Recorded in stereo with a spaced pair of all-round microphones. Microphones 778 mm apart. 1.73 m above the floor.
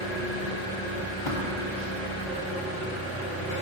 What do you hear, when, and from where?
0.0 s an engine running: 55° left (ahead or behind), 1.8 m
1.3 s tapping: 65° left (ahead or behind), 2 m